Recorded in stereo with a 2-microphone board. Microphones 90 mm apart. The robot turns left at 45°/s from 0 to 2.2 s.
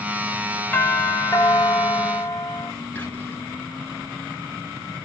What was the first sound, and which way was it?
A doorbell, 150° left.